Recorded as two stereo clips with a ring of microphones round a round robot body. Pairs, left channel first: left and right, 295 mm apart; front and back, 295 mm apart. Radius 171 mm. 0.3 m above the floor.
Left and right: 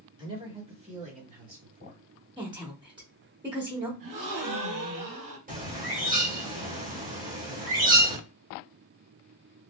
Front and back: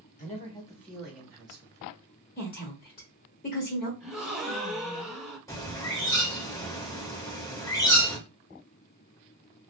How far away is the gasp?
About 1.9 m.